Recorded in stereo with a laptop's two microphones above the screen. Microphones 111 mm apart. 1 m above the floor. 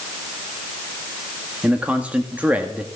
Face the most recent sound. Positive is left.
turn(degrees=-10)  # may be behind; listen again after turning